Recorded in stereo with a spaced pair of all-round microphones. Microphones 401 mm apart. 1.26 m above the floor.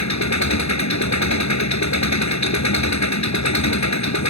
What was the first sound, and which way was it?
An engine running, 45° left (ahead or behind).